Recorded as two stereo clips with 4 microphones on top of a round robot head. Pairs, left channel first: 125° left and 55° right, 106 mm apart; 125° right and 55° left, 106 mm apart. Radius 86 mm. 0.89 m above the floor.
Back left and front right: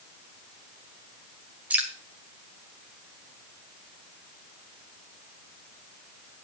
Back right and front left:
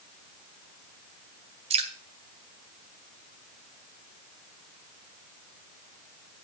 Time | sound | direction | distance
1.7 | dripping | 25° left | 1.7 m